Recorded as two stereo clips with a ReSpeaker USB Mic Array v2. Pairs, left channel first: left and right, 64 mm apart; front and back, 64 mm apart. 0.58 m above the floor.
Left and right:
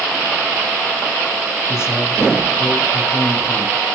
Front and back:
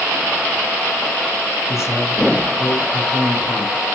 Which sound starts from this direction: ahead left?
A man speaking, at 1.7 s.